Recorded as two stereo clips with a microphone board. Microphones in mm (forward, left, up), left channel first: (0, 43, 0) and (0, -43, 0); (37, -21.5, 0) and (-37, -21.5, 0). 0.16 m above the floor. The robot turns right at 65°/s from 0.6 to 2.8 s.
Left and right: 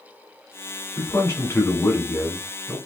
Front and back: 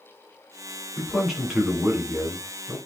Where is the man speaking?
75° left, 1.5 m; by 2.8 s 165° right, 1.5 m.